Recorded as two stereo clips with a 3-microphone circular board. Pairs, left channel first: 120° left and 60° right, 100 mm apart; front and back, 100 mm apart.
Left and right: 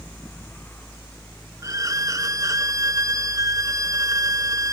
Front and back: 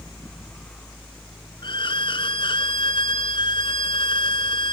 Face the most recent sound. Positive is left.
turn(degrees=-10)